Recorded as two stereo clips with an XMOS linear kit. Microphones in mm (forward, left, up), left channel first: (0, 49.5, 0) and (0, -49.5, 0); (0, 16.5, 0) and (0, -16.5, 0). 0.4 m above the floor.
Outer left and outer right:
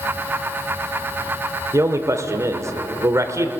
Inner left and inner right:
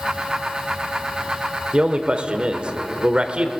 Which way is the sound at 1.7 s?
30° right (ahead or behind).